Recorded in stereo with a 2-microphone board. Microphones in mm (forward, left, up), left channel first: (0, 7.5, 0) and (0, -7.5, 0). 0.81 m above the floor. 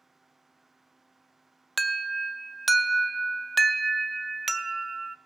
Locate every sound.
1.8 s an alarm: centre (ahead or behind), 0.5 m